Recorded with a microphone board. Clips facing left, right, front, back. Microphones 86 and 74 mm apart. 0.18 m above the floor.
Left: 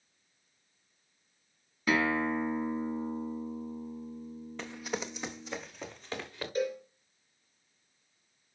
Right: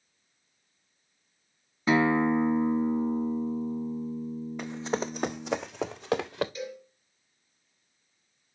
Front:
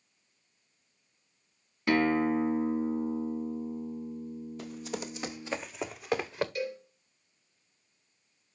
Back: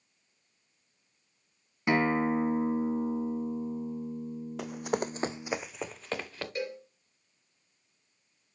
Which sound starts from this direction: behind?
Running footsteps, at 4.6 s.